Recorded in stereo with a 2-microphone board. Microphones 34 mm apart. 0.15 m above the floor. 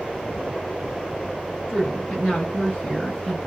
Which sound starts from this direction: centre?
A woman speaking, at 1.7 s.